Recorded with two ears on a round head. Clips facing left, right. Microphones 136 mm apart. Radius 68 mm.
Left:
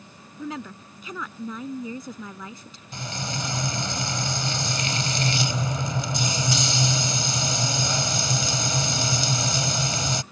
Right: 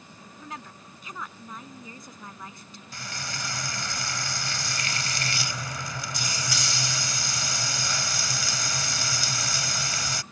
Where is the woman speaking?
70° left (ahead or behind).